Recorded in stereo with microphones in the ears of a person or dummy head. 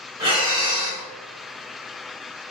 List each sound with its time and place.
0.2 s breathing: 25° right (ahead or behind), 1.2 m